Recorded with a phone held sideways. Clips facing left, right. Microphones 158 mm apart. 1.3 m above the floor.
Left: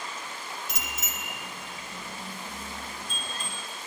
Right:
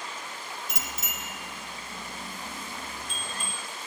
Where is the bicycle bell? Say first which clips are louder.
Even; 85° left, 3.5 m; by 3.5 s 60° left (ahead or behind), 5.5 m.